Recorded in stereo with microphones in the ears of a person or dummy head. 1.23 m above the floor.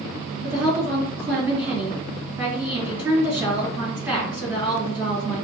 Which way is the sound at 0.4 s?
5° right (ahead or behind).